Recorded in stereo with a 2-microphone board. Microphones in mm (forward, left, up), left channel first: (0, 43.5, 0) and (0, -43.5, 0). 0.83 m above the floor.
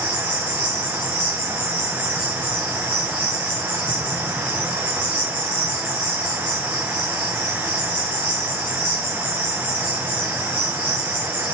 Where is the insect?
85° left, 8 m.